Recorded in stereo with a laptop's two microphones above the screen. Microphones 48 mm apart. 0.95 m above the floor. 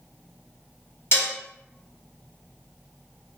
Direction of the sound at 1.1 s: 50° left (ahead or behind).